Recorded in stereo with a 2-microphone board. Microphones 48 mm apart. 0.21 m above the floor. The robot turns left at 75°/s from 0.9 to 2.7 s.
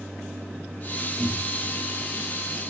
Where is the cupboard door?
10° left (ahead or behind), 3.5 m; by 1.7 s 30° right (ahead or behind), 3.5 m.